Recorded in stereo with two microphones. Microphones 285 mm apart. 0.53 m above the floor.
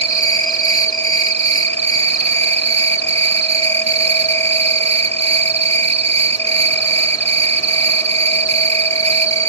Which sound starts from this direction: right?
An insect, at 0.0 s.